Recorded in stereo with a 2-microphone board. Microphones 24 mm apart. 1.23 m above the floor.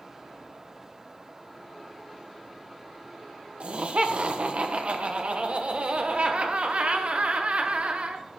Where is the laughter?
55° right (ahead or behind), 1.0 m.